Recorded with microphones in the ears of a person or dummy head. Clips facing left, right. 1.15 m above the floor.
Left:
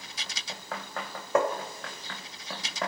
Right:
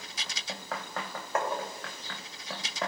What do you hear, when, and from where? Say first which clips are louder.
1.4 s tapping: left 6 dB; 75° left (ahead or behind), 2.5 m